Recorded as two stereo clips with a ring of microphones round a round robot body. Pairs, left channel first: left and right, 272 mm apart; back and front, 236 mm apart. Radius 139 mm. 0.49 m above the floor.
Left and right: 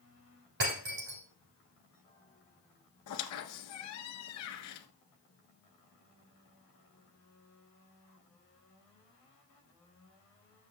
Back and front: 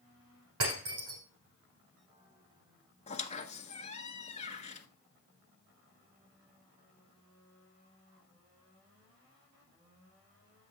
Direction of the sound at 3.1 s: 120° left.